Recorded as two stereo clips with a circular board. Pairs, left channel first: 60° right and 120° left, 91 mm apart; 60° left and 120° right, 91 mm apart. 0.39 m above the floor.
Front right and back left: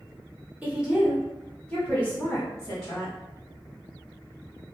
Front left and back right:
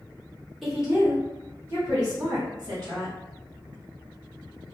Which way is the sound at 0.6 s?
150° left.